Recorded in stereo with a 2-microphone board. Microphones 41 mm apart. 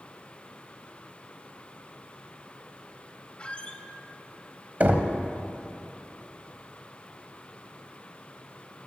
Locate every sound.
3.4 s a squeak: 30° left (ahead or behind), 0.7 m
4.8 s knocking: 40° right (ahead or behind), 1.0 m